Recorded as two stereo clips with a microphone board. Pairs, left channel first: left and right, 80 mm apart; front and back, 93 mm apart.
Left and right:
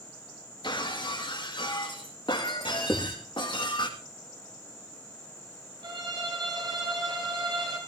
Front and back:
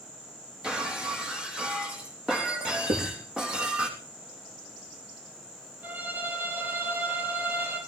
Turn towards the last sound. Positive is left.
turn(degrees=-110)